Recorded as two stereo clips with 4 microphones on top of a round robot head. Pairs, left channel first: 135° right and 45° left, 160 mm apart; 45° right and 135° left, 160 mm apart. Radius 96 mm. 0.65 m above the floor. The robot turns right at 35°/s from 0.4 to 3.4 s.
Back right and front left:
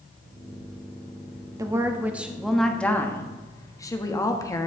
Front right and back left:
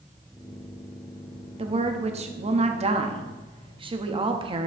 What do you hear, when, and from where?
1.6 s a woman speaking: 105° left, 1.2 m; by 4.7 s 170° left, 1.2 m